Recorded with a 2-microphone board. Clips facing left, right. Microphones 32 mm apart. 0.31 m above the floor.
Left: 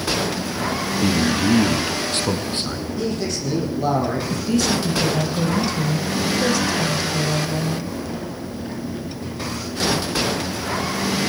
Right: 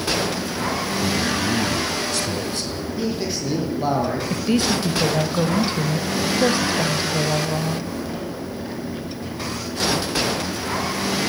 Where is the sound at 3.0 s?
15° right (ahead or behind), 8.5 m.